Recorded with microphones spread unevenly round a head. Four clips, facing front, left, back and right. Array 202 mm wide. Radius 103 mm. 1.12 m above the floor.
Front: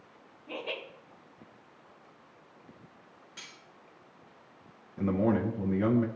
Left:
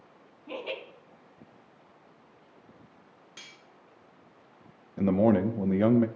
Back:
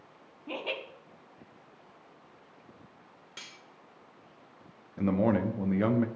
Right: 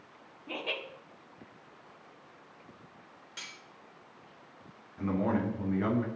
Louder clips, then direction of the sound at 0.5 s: Left 2 dB, back 2 dB; 175° right.